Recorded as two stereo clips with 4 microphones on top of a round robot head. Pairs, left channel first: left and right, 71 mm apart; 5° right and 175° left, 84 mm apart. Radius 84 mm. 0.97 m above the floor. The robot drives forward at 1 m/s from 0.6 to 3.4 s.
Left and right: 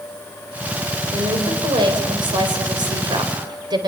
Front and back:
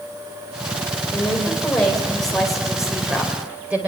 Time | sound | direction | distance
1.1 | a woman speaking | 75° right | 4 m